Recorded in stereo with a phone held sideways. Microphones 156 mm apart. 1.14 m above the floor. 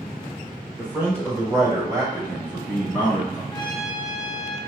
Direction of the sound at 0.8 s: 10° right (ahead or behind).